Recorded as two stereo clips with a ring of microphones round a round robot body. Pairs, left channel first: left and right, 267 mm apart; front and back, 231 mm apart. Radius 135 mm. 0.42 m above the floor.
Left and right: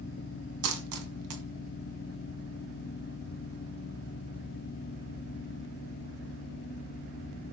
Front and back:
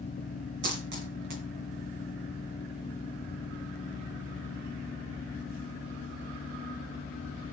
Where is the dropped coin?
125° right, 1.9 m.